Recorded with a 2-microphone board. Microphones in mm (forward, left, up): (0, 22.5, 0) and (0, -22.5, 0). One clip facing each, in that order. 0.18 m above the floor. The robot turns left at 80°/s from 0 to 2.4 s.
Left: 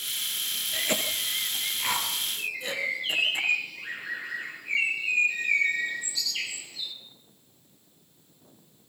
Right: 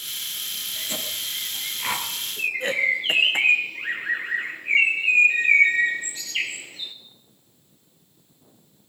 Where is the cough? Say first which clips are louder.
Left 4 dB; 65° left (ahead or behind), 4 m; by 3.4 s 55° right (ahead or behind), 4 m.